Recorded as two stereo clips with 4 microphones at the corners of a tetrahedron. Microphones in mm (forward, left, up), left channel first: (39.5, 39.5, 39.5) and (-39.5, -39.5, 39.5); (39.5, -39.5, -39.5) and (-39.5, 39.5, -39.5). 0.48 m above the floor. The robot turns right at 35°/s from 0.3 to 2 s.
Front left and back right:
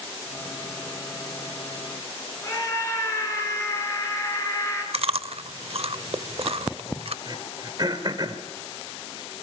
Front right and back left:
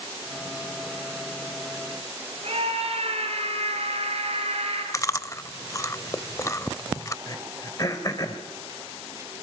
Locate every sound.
2.4 s a scream: 110° left, 8 m
4.9 s chewing: 105° right, 0.5 m
7.3 s throat clearing: 95° right, 2.5 m